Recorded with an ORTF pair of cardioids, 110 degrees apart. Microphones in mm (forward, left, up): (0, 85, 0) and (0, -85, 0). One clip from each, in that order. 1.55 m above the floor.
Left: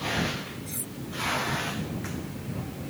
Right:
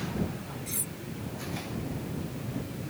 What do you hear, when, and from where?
0.7 s cutlery clinking: 20° right